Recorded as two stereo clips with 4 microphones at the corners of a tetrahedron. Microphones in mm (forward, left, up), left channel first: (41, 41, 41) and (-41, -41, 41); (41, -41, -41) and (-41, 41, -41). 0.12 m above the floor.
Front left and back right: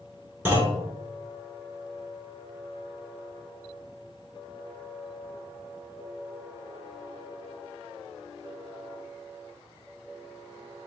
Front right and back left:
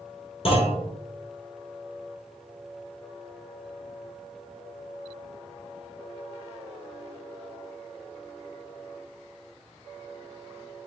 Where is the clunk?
65° right, 0.9 m.